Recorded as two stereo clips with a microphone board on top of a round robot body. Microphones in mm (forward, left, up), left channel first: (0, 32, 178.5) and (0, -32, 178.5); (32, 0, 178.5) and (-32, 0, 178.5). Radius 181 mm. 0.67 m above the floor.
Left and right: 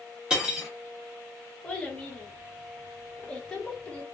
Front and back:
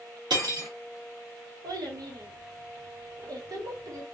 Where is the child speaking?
170° left, 1.2 m.